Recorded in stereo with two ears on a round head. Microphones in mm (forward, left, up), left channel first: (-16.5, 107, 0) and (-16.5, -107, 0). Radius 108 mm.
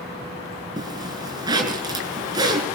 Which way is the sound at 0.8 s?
15° right (ahead or behind).